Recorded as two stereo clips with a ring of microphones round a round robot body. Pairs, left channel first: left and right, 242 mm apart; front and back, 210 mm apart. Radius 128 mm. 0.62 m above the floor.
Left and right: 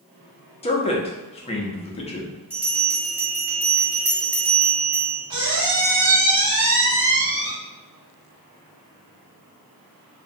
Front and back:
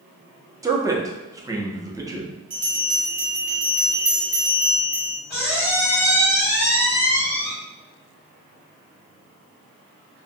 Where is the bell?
170° right, 1.5 m.